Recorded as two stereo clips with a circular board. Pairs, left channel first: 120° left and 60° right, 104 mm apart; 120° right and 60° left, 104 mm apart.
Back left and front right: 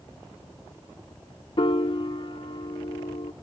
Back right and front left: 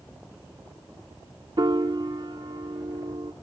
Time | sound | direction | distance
1.6 | a piano | 100° left | 0.7 m